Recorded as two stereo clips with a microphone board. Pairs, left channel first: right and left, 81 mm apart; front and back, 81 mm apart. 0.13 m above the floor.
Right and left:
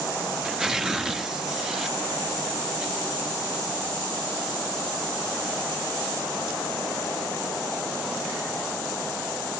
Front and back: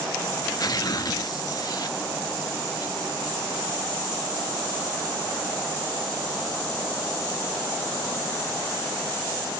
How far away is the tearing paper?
About 1.3 m.